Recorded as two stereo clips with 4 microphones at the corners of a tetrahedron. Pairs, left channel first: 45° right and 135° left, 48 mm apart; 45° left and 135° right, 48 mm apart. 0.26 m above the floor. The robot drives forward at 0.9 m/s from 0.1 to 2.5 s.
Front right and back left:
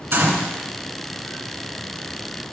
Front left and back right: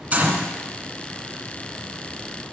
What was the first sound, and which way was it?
A gunshot, straight behind.